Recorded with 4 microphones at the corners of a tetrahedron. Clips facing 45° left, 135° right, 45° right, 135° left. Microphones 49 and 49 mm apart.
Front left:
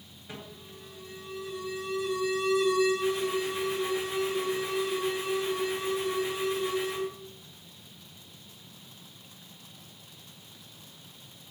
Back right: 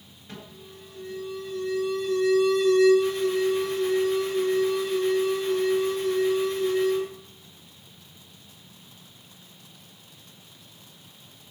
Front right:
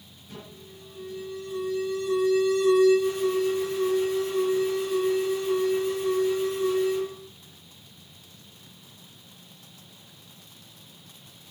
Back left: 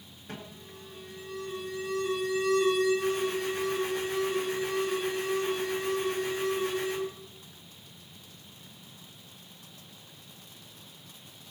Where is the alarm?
125° left, 4.5 m.